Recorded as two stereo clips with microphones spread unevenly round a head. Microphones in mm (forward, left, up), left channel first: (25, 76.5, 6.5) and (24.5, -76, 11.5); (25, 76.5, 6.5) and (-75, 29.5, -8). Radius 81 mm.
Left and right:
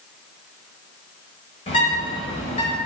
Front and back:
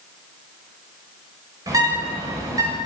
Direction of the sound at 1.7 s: 150° left.